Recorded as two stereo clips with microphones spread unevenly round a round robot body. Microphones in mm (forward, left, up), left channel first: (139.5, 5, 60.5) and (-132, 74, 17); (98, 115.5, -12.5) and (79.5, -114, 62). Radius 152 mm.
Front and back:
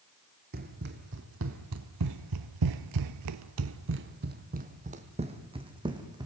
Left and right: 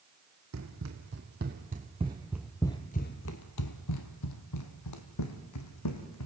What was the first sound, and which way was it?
Running footsteps, 130° right.